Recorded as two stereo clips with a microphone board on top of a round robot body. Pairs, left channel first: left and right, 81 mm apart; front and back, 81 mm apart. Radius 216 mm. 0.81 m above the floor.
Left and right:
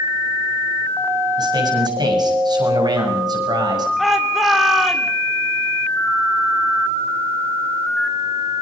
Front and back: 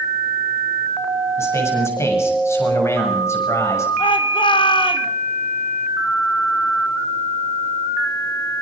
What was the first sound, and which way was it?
A man speaking, 60° right.